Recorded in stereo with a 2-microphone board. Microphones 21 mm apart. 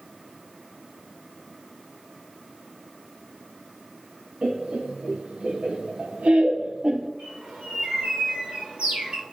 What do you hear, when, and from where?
4.4 s laughter: 75° right (ahead or behind), 2.0 m; by 7.1 s 40° right (ahead or behind), 0.6 m
7.2 s a bird: 60° right (ahead or behind), 3.5 m